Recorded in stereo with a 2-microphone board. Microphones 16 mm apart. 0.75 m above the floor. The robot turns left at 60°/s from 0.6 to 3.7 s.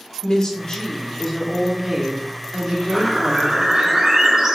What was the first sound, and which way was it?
A woman speaking, 55° left.